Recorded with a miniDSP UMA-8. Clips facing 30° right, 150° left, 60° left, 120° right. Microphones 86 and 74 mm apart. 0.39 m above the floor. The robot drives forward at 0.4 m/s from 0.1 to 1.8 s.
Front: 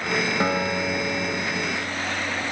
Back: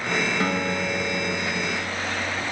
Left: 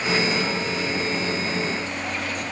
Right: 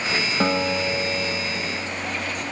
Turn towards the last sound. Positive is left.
turn(degrees=-135)